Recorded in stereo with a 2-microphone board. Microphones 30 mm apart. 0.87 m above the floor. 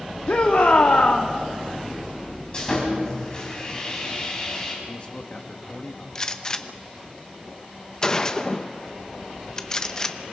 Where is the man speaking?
40° left (ahead or behind), 1.7 m.